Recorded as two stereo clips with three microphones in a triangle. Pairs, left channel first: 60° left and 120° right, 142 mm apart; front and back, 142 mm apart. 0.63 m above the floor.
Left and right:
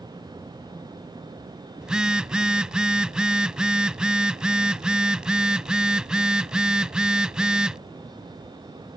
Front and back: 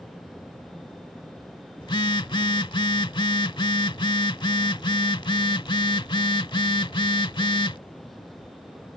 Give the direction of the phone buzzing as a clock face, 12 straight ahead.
1 o'clock.